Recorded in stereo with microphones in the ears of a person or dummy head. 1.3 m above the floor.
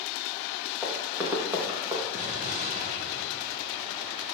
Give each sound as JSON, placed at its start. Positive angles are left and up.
{"t": 0.8, "sound": "running footsteps", "side_deg": -10, "distance_m": 4.5}
{"t": 2.1, "sound": "an explosion", "side_deg": -40, "distance_m": 1.8}